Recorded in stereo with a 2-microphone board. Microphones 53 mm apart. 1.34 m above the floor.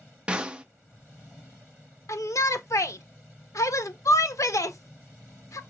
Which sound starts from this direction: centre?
A snare drum, at 0.3 s.